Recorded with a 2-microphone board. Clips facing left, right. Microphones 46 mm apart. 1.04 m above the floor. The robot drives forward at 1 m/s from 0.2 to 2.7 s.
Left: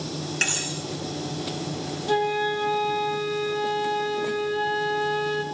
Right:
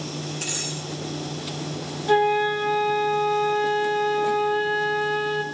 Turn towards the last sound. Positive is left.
turn(degrees=-15)  # may be behind; listen again after turning